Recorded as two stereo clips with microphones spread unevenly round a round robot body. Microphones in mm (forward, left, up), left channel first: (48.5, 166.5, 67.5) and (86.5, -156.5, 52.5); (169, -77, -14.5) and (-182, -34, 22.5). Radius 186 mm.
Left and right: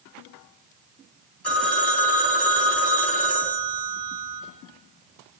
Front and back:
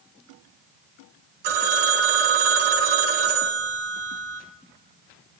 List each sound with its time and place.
1.4 s a phone ringing: 175° right, 3.5 m